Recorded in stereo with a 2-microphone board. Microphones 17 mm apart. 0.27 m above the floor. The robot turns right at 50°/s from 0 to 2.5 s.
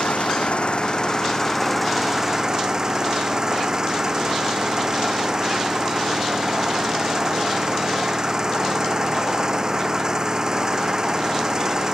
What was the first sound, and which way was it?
An engine running, 85° left.